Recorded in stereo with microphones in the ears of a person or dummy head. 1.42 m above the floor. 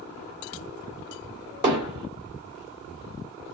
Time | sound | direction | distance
1.6 | hammering | 25° right (ahead or behind) | 1.3 m